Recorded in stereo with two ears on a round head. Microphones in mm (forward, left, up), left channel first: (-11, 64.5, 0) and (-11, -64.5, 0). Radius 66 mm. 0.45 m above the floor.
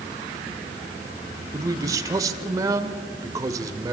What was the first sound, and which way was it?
A man speaking, 25° right (ahead or behind).